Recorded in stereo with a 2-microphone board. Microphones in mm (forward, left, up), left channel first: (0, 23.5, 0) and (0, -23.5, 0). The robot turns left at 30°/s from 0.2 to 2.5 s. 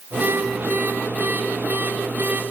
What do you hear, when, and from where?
Only background noise.